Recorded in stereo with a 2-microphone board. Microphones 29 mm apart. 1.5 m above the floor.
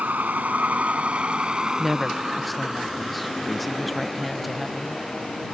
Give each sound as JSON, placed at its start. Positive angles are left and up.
{"t": 0.0, "sound": "a vehicle", "side_deg": -75}
{"t": 1.8, "sound": "a woman speaking", "side_deg": 0}